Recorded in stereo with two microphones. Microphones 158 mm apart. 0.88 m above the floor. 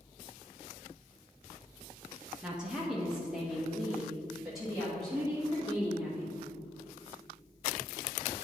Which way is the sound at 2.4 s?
5° right (ahead or behind).